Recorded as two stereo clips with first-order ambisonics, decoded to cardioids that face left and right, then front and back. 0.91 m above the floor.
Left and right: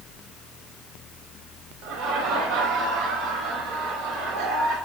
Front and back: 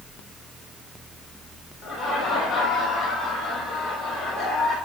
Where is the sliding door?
No sliding door in this recording.